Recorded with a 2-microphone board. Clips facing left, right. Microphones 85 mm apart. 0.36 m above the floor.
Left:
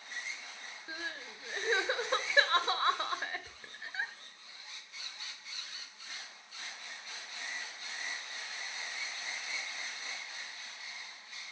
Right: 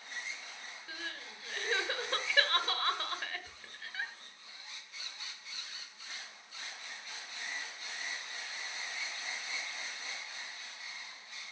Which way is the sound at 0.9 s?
20° left (ahead or behind).